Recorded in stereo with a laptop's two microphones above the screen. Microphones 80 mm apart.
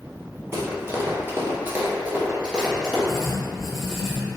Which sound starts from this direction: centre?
Writing, at 3.1 s.